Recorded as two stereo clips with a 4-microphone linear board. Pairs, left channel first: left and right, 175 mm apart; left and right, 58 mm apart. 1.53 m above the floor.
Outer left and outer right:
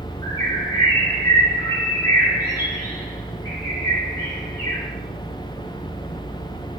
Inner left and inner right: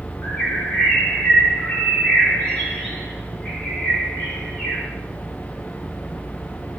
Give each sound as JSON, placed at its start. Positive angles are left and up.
{"t": 0.2, "sound": "a bird", "side_deg": 25, "distance_m": 3.0}